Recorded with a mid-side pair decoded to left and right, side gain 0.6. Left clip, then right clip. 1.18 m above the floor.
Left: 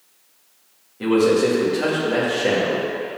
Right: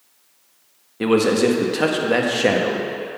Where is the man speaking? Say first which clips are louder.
Even; 45° right, 1.5 m.